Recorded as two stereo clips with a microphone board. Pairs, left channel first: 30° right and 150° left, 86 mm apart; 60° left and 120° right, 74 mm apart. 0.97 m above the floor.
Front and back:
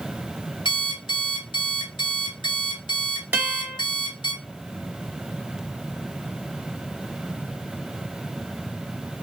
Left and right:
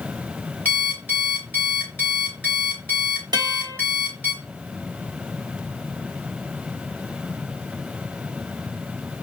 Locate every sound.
0.7 s an alarm clock: 10° right, 3 m
3.3 s a guitar: 145° right, 0.7 m